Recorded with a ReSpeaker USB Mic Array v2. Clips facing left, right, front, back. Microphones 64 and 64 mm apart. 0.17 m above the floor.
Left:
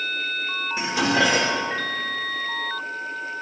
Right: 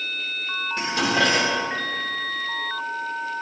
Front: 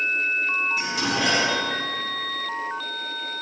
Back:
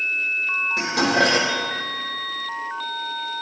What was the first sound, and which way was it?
Dishes clattering, 170° left.